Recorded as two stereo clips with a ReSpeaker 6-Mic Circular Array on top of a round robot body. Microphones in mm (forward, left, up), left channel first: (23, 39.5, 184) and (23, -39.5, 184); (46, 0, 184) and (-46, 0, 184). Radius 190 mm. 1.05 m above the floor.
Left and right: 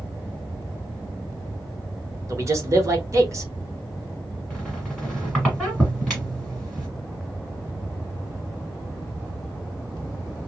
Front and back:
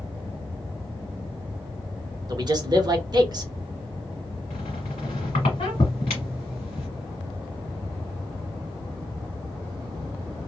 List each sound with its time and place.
2.3 s a man speaking: 140° right, 1.3 m
4.5 s a squeak: 5° left, 1.2 m